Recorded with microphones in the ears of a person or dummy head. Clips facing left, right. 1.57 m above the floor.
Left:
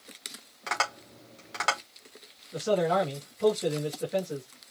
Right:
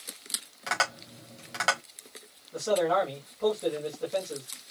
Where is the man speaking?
15° left (ahead or behind), 3 m.